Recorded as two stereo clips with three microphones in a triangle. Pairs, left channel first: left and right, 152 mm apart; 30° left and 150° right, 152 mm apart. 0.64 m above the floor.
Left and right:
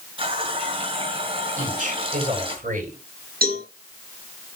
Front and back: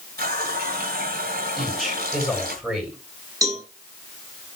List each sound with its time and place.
0.2 s a running tap: 145° right, 2 m
1.6 s a man speaking: 65° right, 7.5 m
3.4 s a cowbell: 85° right, 5 m